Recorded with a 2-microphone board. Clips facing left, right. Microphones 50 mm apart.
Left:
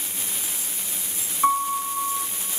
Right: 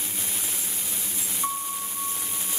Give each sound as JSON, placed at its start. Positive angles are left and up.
{"t": 1.4, "sound": "a piano", "side_deg": 40, "distance_m": 1.5}